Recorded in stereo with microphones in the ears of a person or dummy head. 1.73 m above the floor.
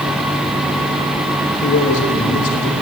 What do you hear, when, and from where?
1.6 s a man speaking: 45° left (ahead or behind), 3 m